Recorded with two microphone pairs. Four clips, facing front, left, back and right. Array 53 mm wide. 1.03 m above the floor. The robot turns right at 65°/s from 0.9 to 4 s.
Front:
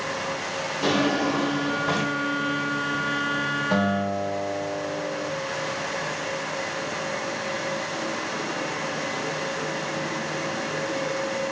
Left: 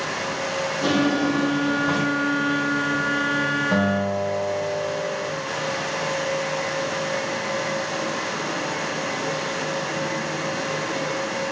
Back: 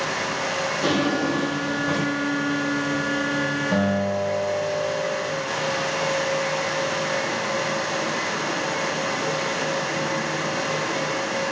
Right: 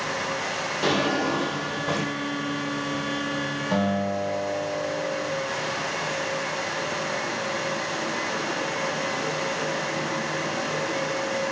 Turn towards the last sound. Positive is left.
turn(degrees=40)